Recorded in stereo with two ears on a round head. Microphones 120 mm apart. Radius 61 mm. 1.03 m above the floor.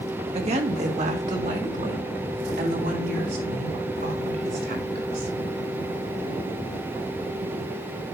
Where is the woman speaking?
50° right (ahead or behind), 1.6 m; by 5.3 s 85° right, 4 m.